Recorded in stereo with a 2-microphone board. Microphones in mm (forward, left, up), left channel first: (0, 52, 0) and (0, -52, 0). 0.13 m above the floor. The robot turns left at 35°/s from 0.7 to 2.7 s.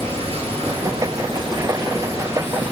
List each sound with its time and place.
0.0 s running water: 95° right, 1.5 m; by 2.7 s 165° right, 1.5 m